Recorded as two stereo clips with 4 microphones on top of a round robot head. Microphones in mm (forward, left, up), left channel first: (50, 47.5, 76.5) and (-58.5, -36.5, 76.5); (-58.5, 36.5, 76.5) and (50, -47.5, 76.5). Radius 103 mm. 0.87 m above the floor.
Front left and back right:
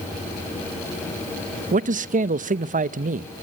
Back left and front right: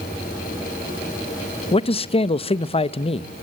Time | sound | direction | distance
1.7 | a man speaking | 170° right | 0.7 m